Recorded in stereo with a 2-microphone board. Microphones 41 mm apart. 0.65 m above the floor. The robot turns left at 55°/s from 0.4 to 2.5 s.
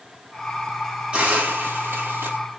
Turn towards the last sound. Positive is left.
turn(degrees=-100)